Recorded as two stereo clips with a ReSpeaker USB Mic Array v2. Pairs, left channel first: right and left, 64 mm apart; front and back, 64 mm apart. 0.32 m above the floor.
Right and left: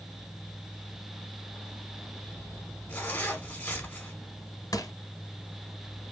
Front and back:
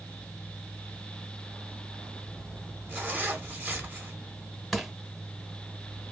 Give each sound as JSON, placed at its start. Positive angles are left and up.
{"t": 2.9, "sound": "a zipper", "azimuth_deg": -135, "distance_m": 1.0}
{"t": 4.7, "sound": "crushing", "azimuth_deg": -90, "distance_m": 0.6}